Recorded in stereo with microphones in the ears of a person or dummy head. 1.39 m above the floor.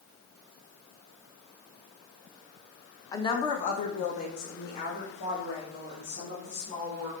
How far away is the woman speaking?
About 1.2 m.